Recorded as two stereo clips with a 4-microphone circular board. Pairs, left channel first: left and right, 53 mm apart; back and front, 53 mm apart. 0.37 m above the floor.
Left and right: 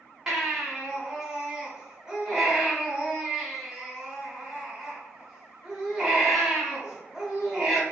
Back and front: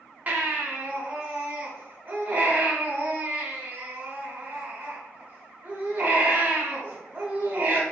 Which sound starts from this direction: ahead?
A baby crying, at 0.3 s.